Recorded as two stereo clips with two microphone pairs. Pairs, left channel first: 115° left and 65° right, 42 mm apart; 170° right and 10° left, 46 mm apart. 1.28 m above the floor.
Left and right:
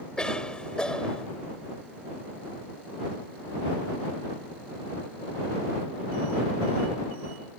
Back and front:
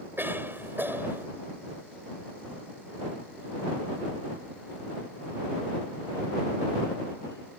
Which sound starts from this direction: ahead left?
A cough, at 0.2 s.